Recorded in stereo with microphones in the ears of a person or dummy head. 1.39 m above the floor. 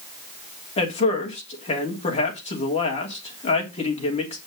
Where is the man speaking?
35° left (ahead or behind), 3 m.